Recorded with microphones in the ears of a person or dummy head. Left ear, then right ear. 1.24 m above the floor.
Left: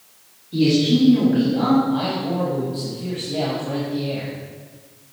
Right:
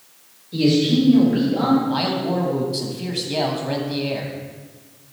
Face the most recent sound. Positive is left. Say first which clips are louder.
# right 1 dB
turn(degrees=-50)  # may be behind; listen again after turning